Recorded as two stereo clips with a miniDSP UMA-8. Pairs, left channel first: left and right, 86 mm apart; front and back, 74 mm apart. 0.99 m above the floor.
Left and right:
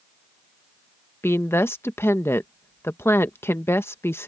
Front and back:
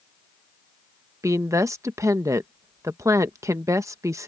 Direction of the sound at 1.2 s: 145° left.